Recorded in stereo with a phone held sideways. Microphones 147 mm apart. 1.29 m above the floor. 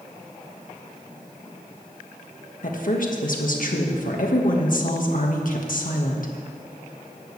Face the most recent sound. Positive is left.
turn(degrees=65)  # may be behind; listen again after turning